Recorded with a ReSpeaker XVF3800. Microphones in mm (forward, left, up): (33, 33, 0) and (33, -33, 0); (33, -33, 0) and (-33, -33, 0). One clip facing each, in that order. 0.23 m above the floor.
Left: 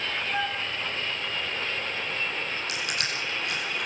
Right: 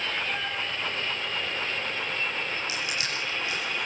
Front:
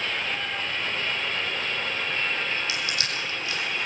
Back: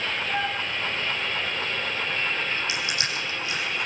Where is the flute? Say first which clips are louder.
Left 3 dB, back 4 dB; 155° left, 3.5 m.